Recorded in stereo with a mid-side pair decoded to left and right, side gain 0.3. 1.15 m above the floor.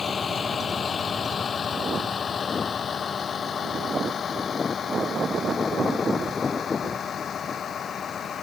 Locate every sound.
0.0 s a vehicle: 65° left; by 8.4 s 75° left